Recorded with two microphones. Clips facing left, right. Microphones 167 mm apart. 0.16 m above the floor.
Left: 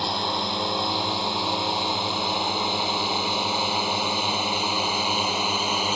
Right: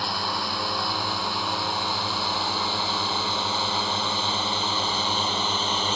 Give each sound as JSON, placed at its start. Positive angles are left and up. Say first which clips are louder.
{"t": 0.0, "sound": "a drone", "louder": "left 3 dB", "side_deg": 25}